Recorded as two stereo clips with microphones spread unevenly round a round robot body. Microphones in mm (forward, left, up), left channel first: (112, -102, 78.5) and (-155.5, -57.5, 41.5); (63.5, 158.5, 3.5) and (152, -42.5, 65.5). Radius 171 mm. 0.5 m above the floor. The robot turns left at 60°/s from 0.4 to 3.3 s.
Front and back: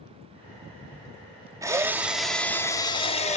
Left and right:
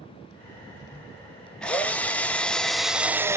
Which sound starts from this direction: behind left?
A drill, at 1.6 s.